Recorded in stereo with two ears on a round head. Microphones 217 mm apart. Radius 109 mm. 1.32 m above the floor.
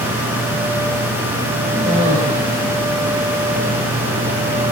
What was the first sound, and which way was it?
A cough, 30° right (ahead or behind).